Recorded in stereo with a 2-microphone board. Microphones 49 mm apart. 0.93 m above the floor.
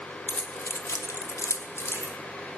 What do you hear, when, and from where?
0.3 s keys jangling: 30° left (ahead or behind), 1.4 m; by 2.1 s 50° left (ahead or behind), 1.9 m